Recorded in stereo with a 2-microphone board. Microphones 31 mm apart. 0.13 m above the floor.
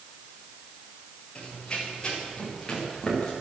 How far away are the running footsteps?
About 8 m.